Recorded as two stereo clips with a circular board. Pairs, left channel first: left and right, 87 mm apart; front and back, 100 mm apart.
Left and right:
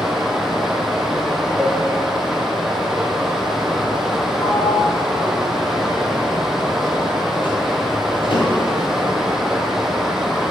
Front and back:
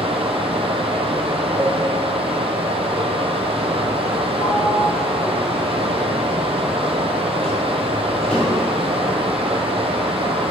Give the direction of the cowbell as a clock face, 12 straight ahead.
5 o'clock.